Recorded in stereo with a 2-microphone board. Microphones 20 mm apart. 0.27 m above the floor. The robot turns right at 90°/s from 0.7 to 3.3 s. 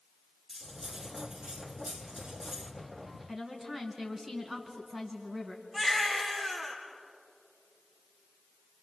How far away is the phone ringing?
I don't hear a phone ringing.